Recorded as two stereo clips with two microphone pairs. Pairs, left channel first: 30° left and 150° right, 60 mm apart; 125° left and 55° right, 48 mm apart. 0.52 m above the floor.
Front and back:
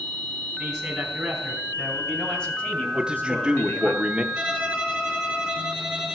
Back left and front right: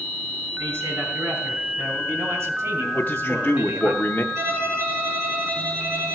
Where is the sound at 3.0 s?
135° left, 0.7 m.